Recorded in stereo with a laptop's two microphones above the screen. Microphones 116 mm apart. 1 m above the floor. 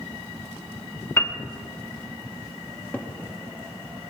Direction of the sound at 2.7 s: 15° left (ahead or behind).